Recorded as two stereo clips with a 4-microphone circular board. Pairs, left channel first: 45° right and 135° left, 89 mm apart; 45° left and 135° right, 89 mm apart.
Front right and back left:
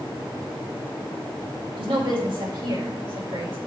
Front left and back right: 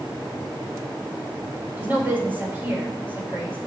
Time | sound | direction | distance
1.8 | a woman speaking | 155° left | 4.5 m